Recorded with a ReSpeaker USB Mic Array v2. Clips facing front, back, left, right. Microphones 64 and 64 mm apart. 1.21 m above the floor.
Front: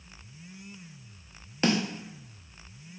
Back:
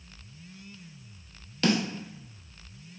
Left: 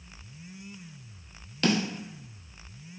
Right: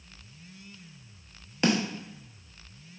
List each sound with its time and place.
1.6 s a snare drum: 40° right, 0.6 m